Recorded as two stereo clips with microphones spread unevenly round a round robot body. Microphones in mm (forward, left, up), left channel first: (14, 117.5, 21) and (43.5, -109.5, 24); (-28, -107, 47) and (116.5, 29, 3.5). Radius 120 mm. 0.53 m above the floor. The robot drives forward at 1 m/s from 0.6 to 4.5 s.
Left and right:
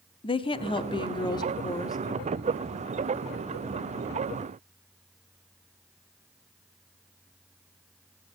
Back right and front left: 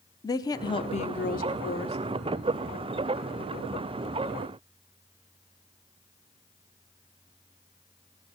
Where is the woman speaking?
145° left, 0.8 m; by 2.0 s 170° left, 1.9 m.